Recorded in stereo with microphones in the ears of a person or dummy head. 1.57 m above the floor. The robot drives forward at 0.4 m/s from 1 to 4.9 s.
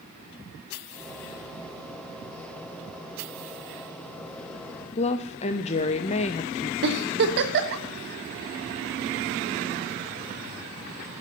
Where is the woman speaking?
35° left (ahead or behind), 0.5 m.